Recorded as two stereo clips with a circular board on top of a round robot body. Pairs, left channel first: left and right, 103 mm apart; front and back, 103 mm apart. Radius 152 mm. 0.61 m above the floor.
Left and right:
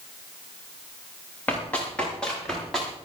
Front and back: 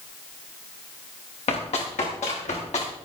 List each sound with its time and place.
1.5 s running footsteps: 15° left, 8 m; by 2.9 s straight ahead, 8 m